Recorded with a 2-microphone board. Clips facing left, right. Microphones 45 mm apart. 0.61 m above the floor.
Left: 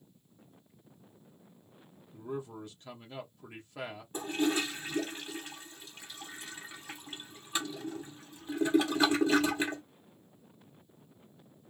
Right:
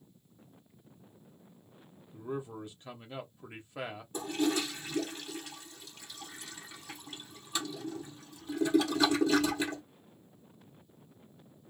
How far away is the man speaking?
About 1.1 m.